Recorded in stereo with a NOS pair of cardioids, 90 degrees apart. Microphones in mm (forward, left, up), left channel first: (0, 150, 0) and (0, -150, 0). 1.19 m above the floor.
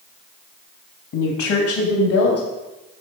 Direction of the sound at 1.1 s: 60° left.